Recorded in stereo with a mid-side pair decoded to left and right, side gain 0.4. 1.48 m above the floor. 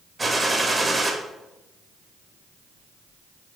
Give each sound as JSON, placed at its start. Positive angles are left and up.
{"t": 0.2, "sound": "a gunshot", "azimuth_deg": -25, "distance_m": 0.9}